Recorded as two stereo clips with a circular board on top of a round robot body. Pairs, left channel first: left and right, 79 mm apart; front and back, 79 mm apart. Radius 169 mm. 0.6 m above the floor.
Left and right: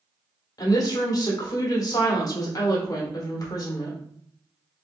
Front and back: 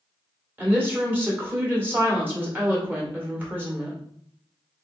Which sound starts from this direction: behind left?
A woman speaking, at 0.6 s.